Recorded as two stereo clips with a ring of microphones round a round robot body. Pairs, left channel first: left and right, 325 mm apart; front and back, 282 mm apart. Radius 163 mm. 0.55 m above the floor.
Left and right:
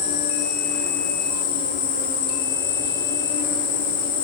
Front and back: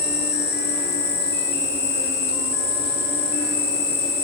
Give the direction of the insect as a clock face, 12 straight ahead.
10 o'clock.